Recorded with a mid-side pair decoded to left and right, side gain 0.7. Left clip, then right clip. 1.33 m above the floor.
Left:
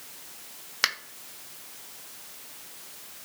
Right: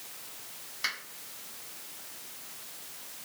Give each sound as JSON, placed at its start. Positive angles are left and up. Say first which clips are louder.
{"t": 0.8, "sound": "a finger snap", "louder": "left 7 dB", "azimuth_deg": 70, "distance_m": 0.5}